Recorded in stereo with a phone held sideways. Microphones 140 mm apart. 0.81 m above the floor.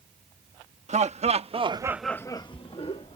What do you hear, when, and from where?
0.9 s laughter: 55° right (ahead or behind); by 3.2 s 45° left (ahead or behind)